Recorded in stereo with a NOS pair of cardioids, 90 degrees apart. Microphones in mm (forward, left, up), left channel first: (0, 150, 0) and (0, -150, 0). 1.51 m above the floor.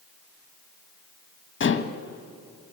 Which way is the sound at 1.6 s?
40° left.